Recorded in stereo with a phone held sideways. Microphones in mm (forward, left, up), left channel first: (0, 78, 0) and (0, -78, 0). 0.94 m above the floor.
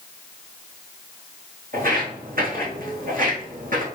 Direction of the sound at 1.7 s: 75° right (ahead or behind).